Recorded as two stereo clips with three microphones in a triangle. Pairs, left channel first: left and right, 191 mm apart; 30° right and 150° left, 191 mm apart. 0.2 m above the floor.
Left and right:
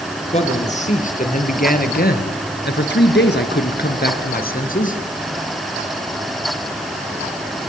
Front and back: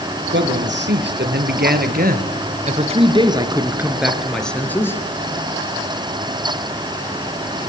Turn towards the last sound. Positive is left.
turn(degrees=45)